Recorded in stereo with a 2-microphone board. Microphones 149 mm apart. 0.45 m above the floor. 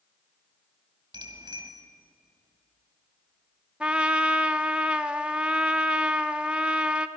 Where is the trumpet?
5° right (ahead or behind), 0.7 m.